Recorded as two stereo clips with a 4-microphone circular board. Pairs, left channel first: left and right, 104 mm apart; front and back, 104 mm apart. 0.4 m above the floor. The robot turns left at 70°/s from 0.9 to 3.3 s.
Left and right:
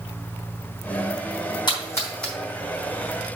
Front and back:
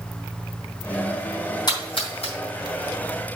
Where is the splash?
45° left, 3.5 m; by 2.3 s straight ahead, 3.5 m.